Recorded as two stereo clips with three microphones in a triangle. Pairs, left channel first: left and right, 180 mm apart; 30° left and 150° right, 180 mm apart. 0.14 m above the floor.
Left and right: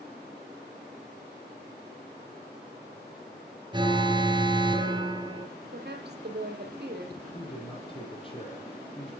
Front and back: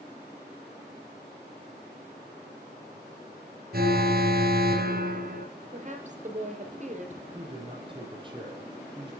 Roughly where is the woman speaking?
Right.